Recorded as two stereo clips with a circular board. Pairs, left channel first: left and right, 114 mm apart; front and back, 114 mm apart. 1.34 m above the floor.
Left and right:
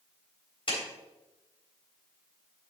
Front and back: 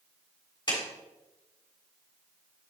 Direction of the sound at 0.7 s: 50° left.